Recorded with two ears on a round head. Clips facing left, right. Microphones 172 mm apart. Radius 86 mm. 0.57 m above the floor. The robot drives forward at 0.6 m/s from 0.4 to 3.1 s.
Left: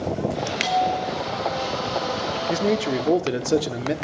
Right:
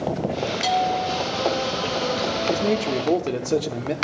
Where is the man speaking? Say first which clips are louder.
Left 2 dB; 5° left (ahead or behind), 0.6 m.